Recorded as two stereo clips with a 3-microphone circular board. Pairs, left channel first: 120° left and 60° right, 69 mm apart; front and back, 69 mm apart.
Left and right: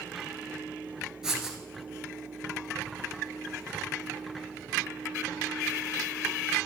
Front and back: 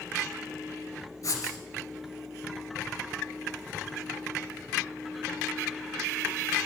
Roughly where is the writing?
Ahead.